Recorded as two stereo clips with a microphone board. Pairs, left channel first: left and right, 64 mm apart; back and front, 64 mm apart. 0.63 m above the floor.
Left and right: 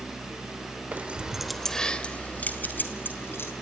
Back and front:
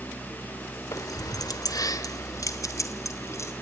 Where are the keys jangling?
155° right, 1.4 m; by 3.5 s 140° left, 3.5 m.